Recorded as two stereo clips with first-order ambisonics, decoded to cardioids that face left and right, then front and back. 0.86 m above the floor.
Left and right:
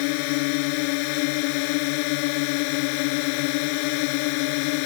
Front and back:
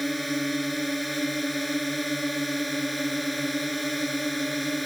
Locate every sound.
0.0 s a drone: 90° left